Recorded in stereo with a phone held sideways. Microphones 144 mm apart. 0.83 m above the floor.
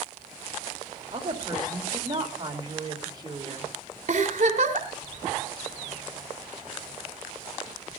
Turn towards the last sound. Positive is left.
turn(degrees=-55)  # may be behind; listen again after turning